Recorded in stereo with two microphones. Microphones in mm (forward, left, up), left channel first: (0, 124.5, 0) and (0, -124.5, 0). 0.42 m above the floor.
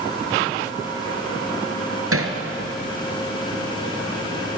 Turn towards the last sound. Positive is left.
turn(degrees=-75)  # may be behind; listen again after turning